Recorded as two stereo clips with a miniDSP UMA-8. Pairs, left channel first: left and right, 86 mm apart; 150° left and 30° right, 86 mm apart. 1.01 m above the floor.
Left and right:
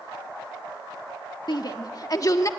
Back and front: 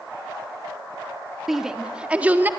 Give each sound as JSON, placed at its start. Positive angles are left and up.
{"t": 1.5, "sound": "a shout", "azimuth_deg": 55, "distance_m": 1.7}